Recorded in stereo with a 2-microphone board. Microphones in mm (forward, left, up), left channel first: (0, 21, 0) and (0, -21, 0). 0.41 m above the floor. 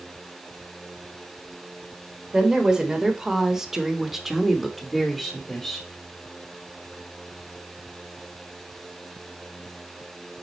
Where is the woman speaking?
15° right (ahead or behind), 1.6 m; by 5.9 s 10° left (ahead or behind), 1.3 m.